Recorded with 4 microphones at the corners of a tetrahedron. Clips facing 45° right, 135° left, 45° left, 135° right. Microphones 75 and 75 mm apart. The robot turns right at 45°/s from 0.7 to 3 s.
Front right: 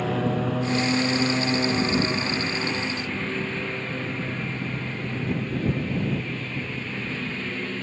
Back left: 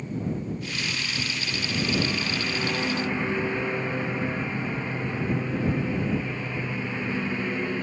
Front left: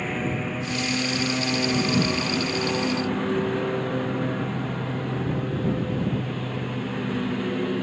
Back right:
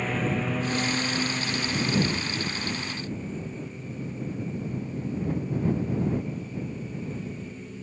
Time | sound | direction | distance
0.0 | a lawn mower | 45° right | ?